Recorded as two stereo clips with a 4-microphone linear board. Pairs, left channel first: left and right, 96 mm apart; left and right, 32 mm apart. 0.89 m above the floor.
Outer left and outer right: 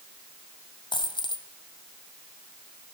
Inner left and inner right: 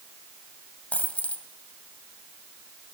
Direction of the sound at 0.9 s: 55° left (ahead or behind).